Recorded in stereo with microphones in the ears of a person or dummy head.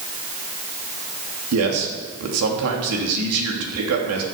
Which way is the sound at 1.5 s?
85° right.